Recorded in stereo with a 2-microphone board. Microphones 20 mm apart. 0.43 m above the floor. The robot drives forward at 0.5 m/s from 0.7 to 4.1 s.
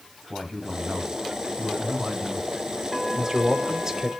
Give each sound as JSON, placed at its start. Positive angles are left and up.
{"t": 0.3, "sound": "a man speaking", "side_deg": -10, "distance_m": 3.0}
{"t": 3.1, "sound": "a man speaking", "side_deg": -25, "distance_m": 1.0}